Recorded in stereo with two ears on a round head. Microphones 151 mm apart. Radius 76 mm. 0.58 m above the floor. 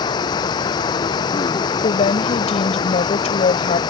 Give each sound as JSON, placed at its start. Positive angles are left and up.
{"t": 0.0, "sound": "running water", "side_deg": 25}
{"t": 1.8, "sound": "a woman speaking", "side_deg": 40}